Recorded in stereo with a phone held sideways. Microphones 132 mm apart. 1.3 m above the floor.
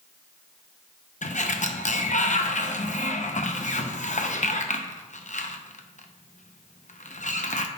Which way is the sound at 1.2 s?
65° left (ahead or behind).